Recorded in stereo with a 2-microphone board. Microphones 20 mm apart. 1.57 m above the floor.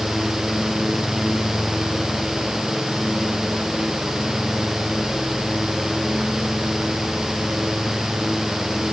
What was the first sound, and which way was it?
Only background noise.